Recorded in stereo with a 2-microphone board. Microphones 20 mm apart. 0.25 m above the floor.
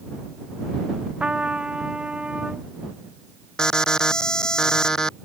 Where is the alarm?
40° left (ahead or behind).